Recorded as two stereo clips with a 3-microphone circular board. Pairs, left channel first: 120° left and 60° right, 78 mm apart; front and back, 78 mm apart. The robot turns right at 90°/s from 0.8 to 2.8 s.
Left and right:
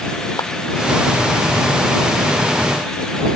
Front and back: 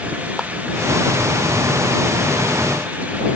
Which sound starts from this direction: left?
A clap, at 0.4 s.